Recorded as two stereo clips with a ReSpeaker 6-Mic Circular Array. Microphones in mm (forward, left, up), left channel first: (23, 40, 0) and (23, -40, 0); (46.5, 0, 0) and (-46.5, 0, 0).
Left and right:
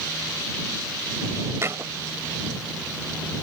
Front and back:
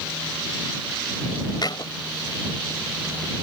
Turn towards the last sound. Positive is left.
turn(degrees=-35)